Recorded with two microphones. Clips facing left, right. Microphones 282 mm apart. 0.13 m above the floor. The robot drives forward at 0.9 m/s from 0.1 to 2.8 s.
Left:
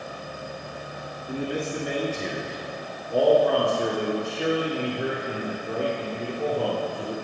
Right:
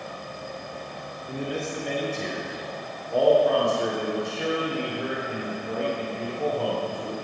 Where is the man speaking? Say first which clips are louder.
Left 2 dB; centre (ahead or behind), 1.2 m.